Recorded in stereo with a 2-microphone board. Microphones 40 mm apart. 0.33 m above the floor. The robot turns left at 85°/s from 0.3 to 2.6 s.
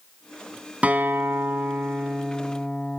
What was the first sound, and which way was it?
A guitar, 35° right.